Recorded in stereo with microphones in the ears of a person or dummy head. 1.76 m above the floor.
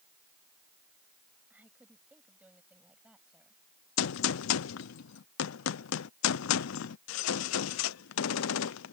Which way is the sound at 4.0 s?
80° left.